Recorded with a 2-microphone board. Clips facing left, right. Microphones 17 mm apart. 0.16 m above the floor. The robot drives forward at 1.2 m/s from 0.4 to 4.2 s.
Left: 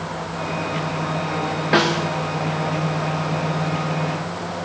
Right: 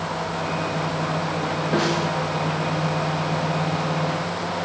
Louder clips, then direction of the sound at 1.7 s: Left 5 dB; 60° left (ahead or behind).